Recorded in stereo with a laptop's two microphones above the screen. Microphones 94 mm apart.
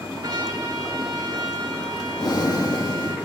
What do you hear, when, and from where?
0.2 s a trumpet: 45° right (ahead or behind), 1.8 m
2.2 s breathing: 45° left (ahead or behind), 1.3 m